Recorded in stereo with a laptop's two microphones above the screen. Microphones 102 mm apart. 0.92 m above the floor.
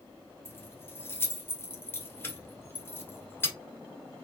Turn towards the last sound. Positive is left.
turn(degrees=25)  # may be behind; listen again after turning